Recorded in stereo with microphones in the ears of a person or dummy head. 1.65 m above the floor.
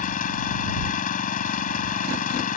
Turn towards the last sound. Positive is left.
turn(degrees=35)  # may be behind; listen again after turning